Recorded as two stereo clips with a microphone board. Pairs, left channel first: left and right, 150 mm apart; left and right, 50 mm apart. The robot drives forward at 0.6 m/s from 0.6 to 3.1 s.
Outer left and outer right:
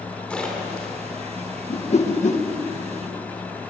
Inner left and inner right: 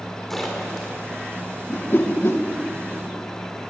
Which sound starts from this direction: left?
A whoosh, at 1.7 s.